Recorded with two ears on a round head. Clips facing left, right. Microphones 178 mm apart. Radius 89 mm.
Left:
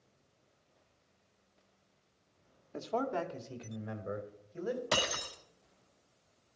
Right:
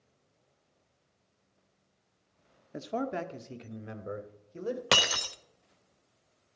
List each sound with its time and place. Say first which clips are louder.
2.7 s a man speaking: right 1 dB; 15° right (ahead or behind), 1.0 m; by 4.8 s 30° right (ahead or behind), 2.5 m
4.9 s breaking glass: right 3 dB; 80° right, 1.0 m